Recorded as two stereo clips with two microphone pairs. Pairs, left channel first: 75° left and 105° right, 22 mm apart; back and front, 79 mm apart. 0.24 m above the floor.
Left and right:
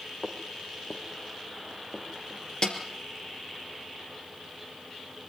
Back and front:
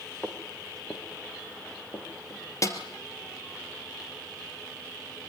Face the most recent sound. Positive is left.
turn(degrees=135)